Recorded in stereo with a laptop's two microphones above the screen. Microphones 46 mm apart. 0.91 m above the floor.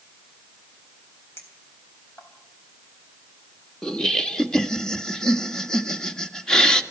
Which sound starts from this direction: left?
A clink, at 1.4 s.